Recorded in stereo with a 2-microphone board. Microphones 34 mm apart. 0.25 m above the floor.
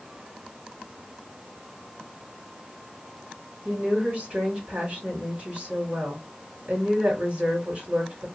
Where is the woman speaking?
35° right (ahead or behind), 3 m.